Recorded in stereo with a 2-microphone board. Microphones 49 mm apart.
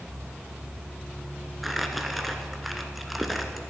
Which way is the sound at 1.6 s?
Centre (ahead or behind).